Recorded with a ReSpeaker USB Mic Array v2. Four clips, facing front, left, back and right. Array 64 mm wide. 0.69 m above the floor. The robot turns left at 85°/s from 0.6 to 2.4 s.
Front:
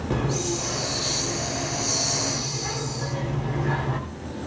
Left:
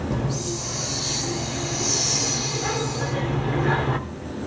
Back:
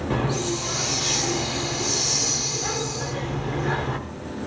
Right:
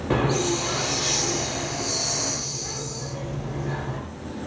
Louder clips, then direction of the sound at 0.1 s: Right 5 dB, back 1 dB; 95° right.